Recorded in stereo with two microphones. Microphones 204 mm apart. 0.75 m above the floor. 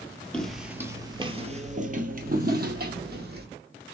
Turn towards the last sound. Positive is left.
turn(degrees=-55)  # may be behind; listen again after turning